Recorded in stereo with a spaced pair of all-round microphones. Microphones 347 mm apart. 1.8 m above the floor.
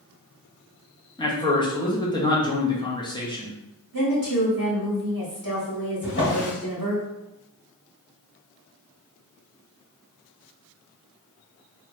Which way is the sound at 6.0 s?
35° left (ahead or behind).